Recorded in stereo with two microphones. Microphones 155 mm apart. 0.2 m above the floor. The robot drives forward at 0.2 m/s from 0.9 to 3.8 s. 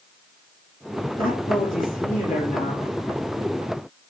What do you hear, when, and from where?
1.2 s a man speaking: 70° left (ahead or behind), 4.5 m; by 2.9 s 65° left (ahead or behind), 4.5 m